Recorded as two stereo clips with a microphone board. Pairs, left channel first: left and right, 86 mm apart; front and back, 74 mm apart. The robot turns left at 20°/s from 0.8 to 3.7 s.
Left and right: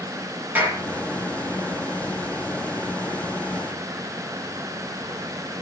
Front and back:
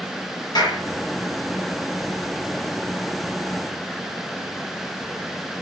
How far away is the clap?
About 7 m.